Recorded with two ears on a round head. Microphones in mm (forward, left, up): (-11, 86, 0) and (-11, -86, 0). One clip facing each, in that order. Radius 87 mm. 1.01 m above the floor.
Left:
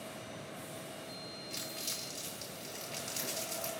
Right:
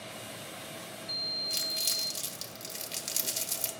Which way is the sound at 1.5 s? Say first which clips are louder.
Right 1 dB; 40° right (ahead or behind).